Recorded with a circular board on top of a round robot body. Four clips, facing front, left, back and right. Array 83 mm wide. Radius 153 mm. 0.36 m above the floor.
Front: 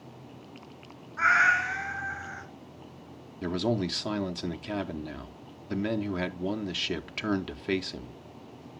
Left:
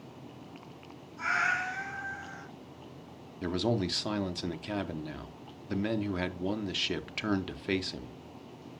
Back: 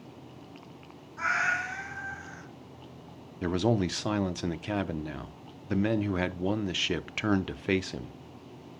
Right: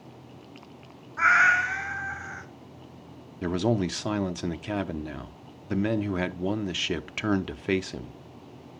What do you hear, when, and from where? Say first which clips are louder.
1.2 s a cat meowing: right 10 dB, front 6 dB; 70° right, 1.3 m
3.4 s a man speaking: right 4 dB, back 2 dB; 135° right, 0.9 m